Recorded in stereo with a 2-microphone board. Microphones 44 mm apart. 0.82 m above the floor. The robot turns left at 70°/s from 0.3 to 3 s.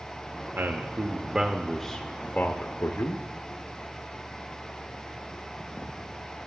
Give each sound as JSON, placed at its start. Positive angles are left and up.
{"t": 0.6, "sound": "a man speaking", "azimuth_deg": -95, "distance_m": 0.7}